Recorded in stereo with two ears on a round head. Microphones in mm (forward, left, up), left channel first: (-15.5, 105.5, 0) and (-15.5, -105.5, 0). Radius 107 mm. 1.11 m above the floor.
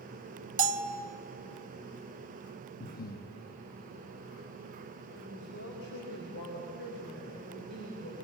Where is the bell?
35° right (ahead or behind), 0.9 m.